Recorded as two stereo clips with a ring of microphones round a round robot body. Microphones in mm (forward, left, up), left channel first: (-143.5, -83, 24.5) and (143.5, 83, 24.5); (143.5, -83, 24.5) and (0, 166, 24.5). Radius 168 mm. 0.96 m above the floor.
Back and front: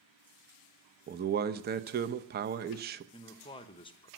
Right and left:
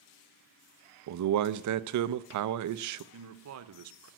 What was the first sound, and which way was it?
A man speaking, 95° left.